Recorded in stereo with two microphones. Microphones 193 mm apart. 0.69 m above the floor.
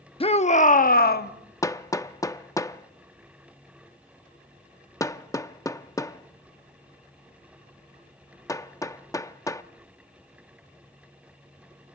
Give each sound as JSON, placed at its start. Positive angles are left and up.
{"t": 0.2, "sound": "a shout", "side_deg": 30, "distance_m": 0.8}
{"t": 1.6, "sound": "hammering", "side_deg": 15, "distance_m": 0.6}